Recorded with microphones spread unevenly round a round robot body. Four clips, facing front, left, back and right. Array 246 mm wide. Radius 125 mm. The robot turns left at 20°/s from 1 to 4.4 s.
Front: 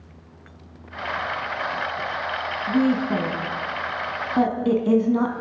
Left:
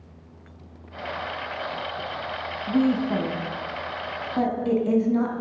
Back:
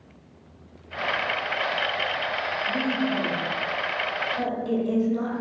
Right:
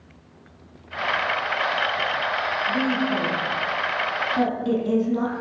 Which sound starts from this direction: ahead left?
A woman speaking, at 2.7 s.